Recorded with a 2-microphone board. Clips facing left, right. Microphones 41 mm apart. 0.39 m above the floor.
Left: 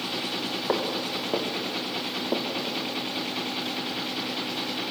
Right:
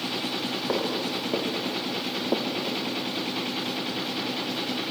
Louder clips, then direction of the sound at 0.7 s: Even; 15° left (ahead or behind).